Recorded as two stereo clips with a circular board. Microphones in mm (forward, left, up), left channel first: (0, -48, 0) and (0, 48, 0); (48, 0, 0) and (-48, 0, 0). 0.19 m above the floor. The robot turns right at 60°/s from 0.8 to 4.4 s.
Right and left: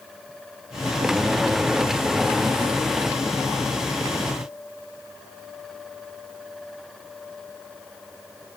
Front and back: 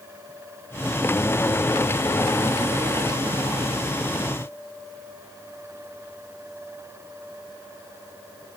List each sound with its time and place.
Only background noise.